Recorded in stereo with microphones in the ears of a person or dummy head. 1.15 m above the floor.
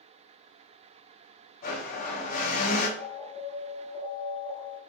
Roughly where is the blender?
Left.